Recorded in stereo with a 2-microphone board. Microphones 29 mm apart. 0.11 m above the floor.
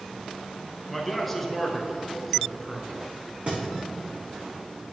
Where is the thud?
45° right (ahead or behind), 2.5 m.